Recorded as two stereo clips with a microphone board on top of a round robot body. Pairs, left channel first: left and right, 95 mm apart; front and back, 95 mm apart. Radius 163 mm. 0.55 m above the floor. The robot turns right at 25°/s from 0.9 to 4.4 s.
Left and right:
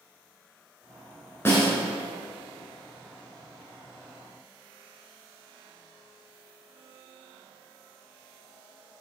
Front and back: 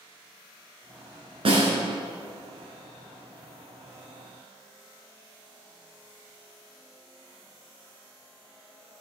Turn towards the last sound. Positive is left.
turn(degrees=-125)